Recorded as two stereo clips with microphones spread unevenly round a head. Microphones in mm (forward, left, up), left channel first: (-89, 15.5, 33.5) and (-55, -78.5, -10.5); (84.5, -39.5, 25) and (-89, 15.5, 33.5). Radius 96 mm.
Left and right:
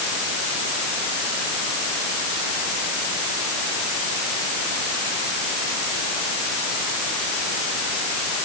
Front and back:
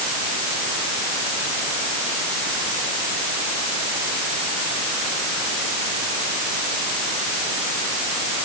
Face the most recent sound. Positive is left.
No sound to turn to.